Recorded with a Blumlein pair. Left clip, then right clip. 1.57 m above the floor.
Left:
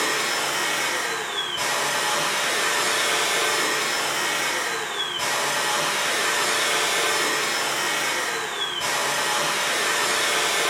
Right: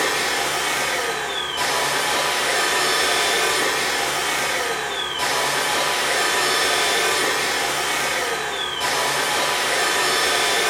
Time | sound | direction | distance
0.0 | a machine running | 70° right | 0.9 m